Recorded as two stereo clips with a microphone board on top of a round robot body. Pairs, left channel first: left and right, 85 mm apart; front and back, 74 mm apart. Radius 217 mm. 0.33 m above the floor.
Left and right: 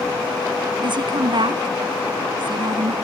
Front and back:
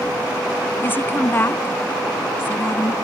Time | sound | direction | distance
0.8 | a woman speaking | 60° right | ?